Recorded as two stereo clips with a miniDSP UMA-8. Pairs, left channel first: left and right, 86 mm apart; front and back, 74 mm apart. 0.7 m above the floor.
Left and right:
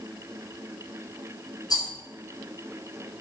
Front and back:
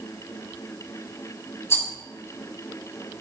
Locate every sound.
1.7 s a rattle: 50° left, 3.5 m